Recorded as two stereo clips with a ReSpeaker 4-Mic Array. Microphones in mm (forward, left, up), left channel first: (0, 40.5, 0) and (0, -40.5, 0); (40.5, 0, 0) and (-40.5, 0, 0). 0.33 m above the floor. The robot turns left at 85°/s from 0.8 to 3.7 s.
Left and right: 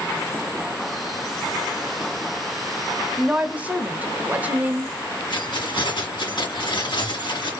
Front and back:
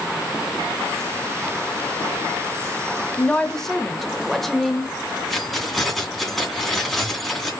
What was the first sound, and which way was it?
A woman speaking, 35° right.